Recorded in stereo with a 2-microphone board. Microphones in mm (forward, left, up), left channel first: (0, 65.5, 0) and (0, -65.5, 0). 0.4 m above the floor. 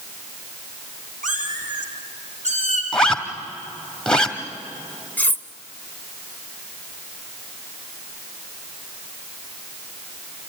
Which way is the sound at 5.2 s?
15° left (ahead or behind).